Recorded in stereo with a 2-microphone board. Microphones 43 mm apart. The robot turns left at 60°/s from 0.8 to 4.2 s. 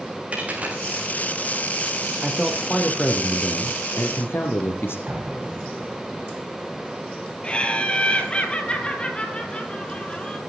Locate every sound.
0.3 s a dropped coin: 30° right (ahead or behind), 4.5 m; by 0.8 s 35° right (ahead or behind), 4.5 m
2.2 s a man speaking: 165° right, 3.5 m; by 5.0 s 75° left, 3.5 m
5.1 s an explosion: 45° right (ahead or behind), 6 m
7.4 s laughter: 25° left (ahead or behind), 3.5 m